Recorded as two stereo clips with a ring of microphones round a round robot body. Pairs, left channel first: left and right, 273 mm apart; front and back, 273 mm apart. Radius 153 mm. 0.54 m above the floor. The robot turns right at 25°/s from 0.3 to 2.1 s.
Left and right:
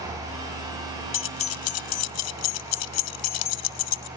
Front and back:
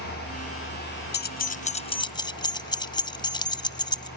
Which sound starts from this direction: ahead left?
Keys jangling, at 1.1 s.